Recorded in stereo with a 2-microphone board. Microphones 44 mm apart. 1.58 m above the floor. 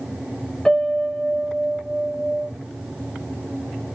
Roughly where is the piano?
Centre.